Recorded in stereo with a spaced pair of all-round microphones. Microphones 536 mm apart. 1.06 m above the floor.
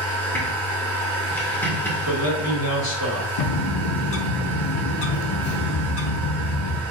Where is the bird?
70° left (ahead or behind), 0.5 m.